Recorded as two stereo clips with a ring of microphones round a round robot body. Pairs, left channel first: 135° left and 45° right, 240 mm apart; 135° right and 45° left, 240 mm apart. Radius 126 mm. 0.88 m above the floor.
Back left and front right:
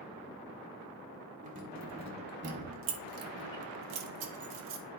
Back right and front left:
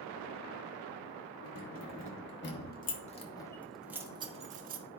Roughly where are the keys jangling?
Right.